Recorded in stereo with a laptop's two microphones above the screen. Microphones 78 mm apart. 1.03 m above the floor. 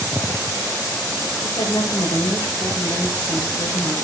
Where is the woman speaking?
65° left (ahead or behind), 5.5 m.